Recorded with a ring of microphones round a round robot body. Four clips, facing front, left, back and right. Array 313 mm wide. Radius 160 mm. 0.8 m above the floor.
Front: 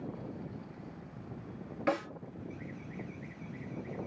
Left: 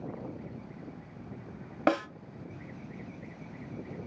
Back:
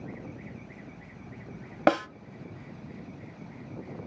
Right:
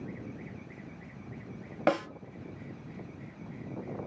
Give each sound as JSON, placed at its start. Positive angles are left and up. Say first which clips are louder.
{"t": 1.9, "sound": "a snare drum", "louder": "even, back 9 dB", "azimuth_deg": 180, "distance_m": 1.0}